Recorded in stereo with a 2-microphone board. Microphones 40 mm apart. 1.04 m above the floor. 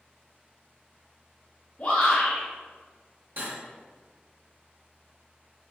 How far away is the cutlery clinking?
About 1.6 m.